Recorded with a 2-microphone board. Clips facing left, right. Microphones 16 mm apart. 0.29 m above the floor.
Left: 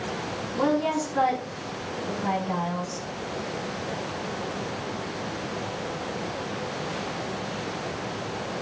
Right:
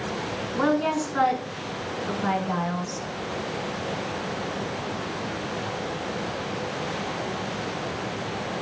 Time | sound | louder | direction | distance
0.6 | a woman speaking | right 1 dB | 60° right (ahead or behind) | 2.5 m